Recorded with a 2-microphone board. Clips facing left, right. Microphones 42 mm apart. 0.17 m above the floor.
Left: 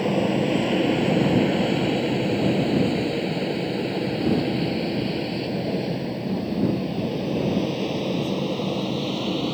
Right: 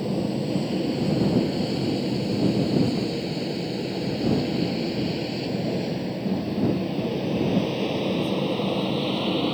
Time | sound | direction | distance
0.0 | an aircraft | 55° left (ahead or behind) | ?